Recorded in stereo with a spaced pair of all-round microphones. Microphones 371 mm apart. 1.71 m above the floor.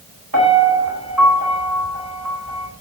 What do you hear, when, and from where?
0.3 s a piano: 60° right (ahead or behind), 5.5 m